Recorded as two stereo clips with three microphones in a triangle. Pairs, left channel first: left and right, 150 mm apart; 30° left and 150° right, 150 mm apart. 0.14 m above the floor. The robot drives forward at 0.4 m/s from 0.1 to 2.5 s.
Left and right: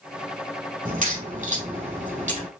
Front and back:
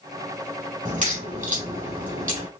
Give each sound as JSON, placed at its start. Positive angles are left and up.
{"t": 0.8, "sound": "a crack", "azimuth_deg": -115, "distance_m": 4.0}